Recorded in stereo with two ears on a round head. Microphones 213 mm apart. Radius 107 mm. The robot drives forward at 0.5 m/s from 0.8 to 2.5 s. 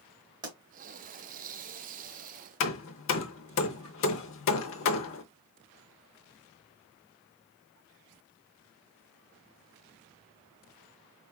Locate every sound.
0.4 s a pop: 20° right (ahead or behind), 2 m
2.6 s hammering: 55° left (ahead or behind), 0.6 m